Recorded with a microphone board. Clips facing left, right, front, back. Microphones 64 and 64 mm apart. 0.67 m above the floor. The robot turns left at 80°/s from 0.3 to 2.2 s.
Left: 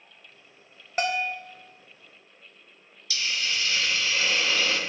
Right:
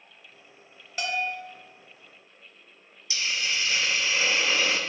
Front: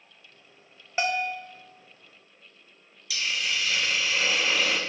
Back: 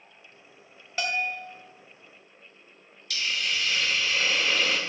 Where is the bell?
60° left, 0.6 m; by 1.4 s 25° left, 0.6 m.